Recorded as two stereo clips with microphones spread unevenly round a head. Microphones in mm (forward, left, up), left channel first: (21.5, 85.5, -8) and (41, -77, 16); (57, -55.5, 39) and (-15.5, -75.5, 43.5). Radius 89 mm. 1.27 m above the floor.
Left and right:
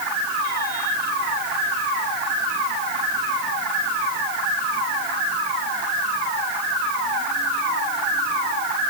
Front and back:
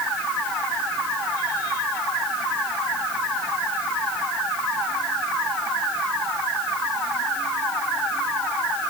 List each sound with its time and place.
Only background noise.